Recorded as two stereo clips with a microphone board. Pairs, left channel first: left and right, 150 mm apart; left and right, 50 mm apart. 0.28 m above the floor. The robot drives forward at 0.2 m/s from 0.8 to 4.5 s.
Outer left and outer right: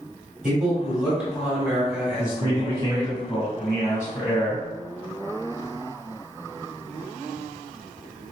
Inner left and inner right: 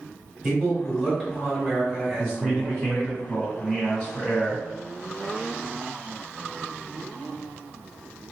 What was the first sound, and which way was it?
A man speaking, 5° right (ahead or behind).